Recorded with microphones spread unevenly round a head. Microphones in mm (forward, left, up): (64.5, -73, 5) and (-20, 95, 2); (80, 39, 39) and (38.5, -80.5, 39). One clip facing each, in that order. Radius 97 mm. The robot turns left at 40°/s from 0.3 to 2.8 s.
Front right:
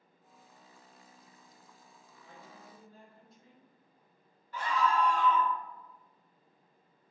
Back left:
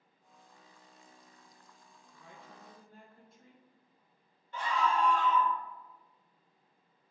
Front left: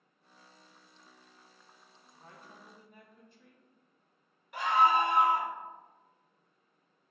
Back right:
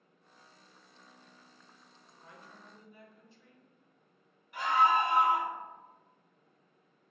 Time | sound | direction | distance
2.1 | a woman speaking | 120° left | 1.0 m
4.5 | a scream | 50° left | 1.8 m